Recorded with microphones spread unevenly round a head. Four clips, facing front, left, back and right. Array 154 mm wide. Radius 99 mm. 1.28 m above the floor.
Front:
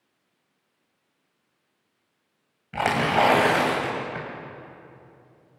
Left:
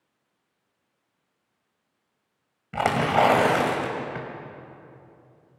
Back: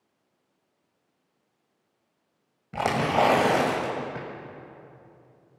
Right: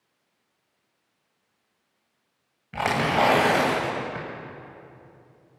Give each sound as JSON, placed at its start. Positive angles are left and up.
{"t": 2.7, "sound": "tearing paper", "azimuth_deg": 160, "distance_m": 2.0}